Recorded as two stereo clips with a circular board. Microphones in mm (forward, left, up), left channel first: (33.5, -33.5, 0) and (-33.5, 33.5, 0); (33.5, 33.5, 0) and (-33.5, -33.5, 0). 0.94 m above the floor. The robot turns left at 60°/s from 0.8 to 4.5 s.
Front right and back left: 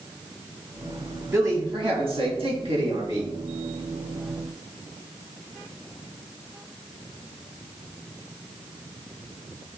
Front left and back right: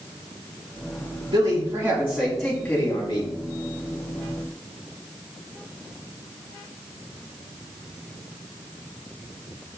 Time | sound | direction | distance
1.3 | a man speaking | 165° right | 2 m